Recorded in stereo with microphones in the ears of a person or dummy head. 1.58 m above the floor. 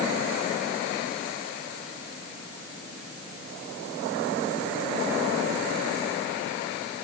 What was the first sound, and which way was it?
Only background noise.